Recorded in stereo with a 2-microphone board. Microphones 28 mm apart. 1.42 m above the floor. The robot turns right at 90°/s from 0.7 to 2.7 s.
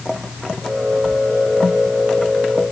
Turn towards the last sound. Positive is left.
No sound to turn to.